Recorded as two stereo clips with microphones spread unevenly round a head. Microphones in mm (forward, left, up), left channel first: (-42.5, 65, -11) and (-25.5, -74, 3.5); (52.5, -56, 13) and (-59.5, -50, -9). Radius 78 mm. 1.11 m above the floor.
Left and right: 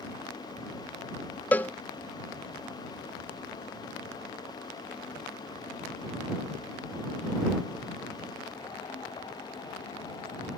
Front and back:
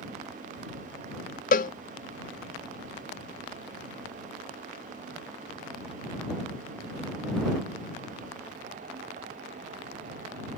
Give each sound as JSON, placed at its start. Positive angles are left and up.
{"t": 1.5, "sound": "a cowbell", "azimuth_deg": 20}